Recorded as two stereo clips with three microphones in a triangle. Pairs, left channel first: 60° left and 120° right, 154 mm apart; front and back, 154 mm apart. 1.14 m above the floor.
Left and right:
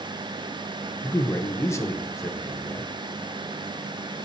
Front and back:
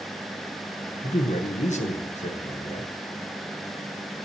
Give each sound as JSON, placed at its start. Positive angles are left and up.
{"t": 1.0, "sound": "a man speaking", "azimuth_deg": -5, "distance_m": 1.0}